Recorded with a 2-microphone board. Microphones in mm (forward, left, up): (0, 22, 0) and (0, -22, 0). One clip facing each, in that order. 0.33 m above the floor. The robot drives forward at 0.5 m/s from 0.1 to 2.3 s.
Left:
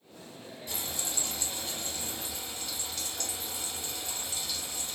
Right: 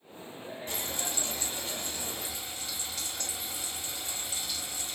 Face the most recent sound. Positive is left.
turn(degrees=-20)  # may be behind; listen again after turning